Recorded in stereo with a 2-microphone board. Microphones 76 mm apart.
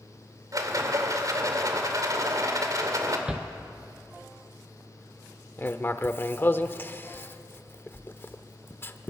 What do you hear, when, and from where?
0.5 s a rattle: 50° right (ahead or behind), 2 m
3.3 s a shout: 10° right (ahead or behind), 0.6 m
5.6 s writing: 30° left (ahead or behind), 0.8 m